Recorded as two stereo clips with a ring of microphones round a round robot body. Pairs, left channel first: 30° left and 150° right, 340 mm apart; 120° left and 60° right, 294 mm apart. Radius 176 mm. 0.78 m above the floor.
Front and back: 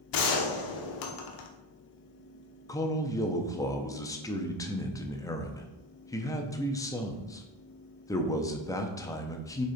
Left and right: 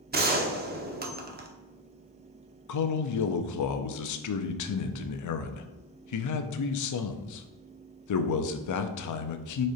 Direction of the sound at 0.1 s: Straight ahead.